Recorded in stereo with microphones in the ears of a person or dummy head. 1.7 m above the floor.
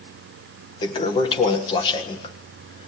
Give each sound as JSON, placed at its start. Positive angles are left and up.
{"t": 0.8, "sound": "a toilet flushing", "side_deg": 35, "distance_m": 1.6}